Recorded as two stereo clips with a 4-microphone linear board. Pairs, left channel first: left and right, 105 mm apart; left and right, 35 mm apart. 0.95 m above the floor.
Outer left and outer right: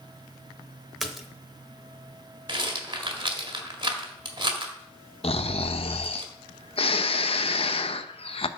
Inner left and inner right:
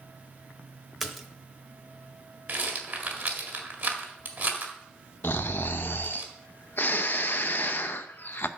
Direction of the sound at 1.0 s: Centre (ahead or behind).